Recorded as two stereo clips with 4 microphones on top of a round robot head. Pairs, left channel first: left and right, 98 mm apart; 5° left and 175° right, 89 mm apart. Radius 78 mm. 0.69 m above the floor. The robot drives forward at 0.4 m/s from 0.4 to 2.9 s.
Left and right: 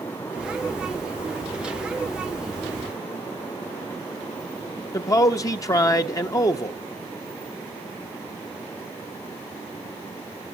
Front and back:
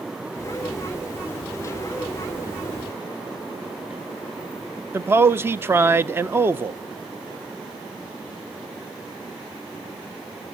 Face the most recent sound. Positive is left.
turn(degrees=130)